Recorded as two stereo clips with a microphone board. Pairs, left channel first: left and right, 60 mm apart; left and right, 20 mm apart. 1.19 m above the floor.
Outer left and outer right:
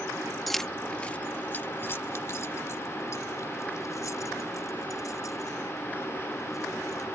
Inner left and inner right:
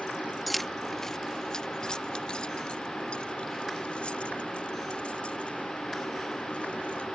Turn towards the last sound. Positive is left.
turn(degrees=80)